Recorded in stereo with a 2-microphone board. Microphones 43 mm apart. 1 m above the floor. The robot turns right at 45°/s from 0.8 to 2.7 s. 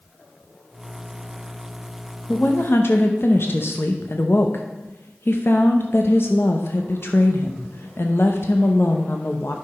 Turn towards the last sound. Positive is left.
turn(degrees=65)  # may be behind; listen again after turning